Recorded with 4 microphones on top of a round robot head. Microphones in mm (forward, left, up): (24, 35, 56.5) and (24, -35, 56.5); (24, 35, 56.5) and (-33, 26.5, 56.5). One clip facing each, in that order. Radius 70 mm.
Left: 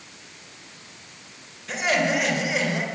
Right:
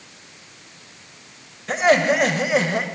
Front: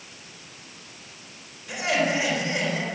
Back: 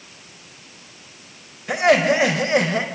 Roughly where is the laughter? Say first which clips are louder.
Right 6 dB, back 8 dB; behind right.